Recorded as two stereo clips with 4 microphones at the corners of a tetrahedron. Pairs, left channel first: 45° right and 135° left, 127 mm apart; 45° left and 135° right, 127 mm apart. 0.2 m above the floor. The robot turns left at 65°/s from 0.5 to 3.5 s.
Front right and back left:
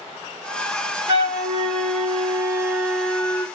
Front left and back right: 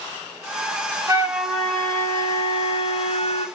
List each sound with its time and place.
1.1 s a flute: 170° left, 0.9 m; by 3.5 s 15° left, 0.9 m